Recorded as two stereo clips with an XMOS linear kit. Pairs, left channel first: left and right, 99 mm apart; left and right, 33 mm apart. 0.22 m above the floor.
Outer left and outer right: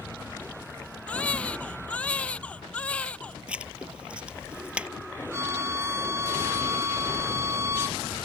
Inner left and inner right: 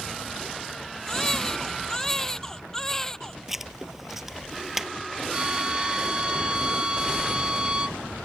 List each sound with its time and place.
1.1 s a baby crying: 10° left (ahead or behind)
3.5 s writing: 10° right (ahead or behind)
5.3 s a violin: 30° right (ahead or behind)